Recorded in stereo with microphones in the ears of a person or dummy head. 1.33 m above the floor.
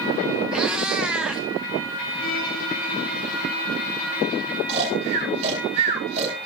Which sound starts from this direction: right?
Snoring, at 4.7 s.